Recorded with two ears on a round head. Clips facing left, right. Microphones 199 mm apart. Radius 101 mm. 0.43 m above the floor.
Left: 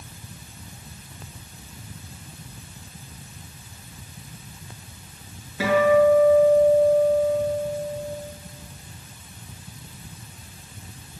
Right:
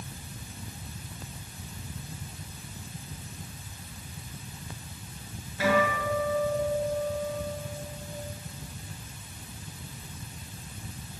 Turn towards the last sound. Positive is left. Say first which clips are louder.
# left 9 dB
turn(degrees=60)  # may be behind; listen again after turning